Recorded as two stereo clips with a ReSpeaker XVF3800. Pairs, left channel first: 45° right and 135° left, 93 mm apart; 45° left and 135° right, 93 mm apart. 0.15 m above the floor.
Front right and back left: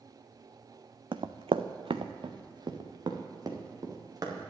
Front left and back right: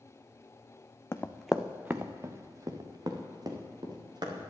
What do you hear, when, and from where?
1.1 s running footsteps: 105° left, 0.6 m; by 4.5 s 175° right, 2.5 m